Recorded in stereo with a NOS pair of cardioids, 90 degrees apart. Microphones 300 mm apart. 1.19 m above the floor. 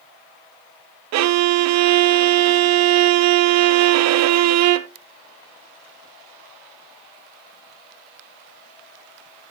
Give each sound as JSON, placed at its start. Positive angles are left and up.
{"t": 1.1, "sound": "a violin", "azimuth_deg": -65, "distance_m": 0.6}